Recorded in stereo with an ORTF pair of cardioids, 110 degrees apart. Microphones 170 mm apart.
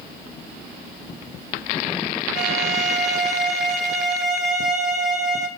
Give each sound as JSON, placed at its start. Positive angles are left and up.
{"t": 2.4, "sound": "a violin", "azimuth_deg": -70, "distance_m": 3.0}